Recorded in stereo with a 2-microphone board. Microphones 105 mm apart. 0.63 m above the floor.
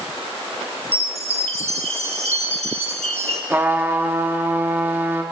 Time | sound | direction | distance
0.9 | a chime | 75° right (ahead or behind) | 1.0 m
3.5 | a trumpet | 20° right (ahead or behind) | 0.9 m